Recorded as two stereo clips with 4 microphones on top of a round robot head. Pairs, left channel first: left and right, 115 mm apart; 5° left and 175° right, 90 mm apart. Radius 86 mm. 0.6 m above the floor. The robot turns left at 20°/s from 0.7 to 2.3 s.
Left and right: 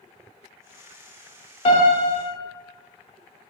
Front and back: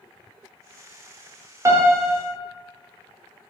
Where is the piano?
130° left, 0.9 m; by 2.2 s 120° left, 0.9 m.